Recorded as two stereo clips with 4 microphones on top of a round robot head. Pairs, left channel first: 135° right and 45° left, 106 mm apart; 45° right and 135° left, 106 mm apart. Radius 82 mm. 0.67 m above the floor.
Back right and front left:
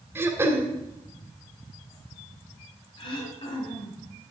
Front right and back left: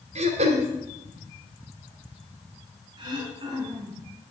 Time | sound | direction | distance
0.1 | throat clearing | 115° left | 2.5 m
3.0 | throat clearing | straight behind | 3.5 m